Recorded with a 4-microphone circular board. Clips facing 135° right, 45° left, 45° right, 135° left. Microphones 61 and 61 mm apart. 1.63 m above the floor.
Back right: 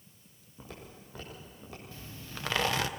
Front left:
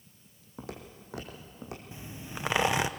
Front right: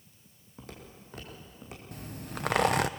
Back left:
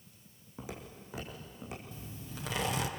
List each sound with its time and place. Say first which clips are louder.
0.6 s footsteps: front left 5 dB, back left 3 dB; 55° left, 4 m; by 1.8 s 45° left, 5 m
1.9 s a zipper: front left 3 dB, front right 5 dB; 25° right, 0.8 m